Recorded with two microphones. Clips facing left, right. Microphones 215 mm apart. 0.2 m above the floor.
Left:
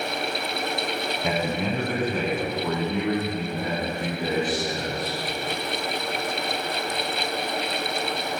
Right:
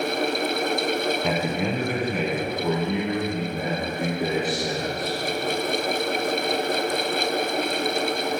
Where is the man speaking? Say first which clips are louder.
Right 1 dB; centre (ahead or behind), 1.2 m; by 5.2 s 20° right (ahead or behind), 4 m.